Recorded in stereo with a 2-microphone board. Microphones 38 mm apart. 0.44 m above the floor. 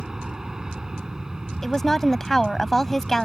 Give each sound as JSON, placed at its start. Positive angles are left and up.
{"t": 0.0, "sound": "an aircraft", "side_deg": -15}
{"t": 1.6, "sound": "a woman speaking", "side_deg": 10}